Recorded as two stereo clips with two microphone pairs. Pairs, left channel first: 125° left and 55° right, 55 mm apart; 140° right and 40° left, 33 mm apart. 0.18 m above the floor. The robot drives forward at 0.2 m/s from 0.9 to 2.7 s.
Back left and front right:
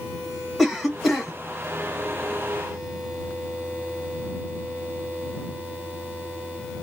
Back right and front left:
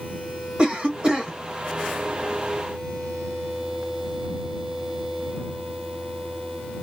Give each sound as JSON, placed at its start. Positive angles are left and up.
{"t": 0.6, "sound": "a cough", "azimuth_deg": 30, "distance_m": 1.5}